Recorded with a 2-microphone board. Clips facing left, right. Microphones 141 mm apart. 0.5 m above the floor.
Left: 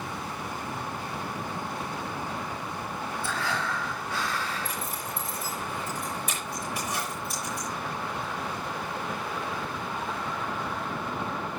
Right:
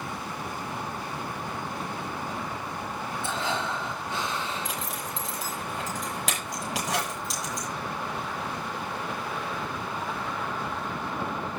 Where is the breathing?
20° right (ahead or behind), 0.5 m.